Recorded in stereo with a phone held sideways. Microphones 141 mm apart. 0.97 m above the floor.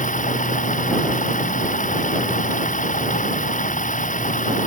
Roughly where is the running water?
Left.